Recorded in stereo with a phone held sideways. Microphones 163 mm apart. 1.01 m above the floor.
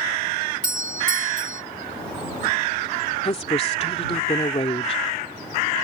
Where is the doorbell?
55° right (ahead or behind).